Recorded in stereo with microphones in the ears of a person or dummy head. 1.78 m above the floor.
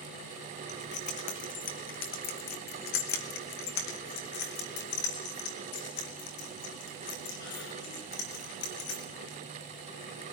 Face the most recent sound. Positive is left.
turn(degrees=80)